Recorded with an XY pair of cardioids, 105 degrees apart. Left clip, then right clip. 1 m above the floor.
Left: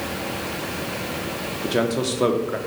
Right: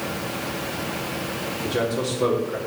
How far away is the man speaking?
About 1.9 m.